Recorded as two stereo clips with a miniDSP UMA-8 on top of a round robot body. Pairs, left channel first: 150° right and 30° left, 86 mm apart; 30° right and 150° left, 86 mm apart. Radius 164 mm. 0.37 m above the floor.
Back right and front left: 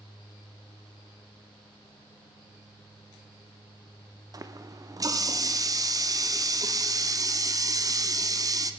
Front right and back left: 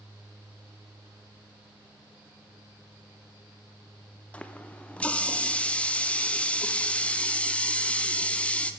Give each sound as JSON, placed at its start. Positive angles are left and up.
{"t": 4.3, "sound": "a running tap", "azimuth_deg": 40, "distance_m": 0.8}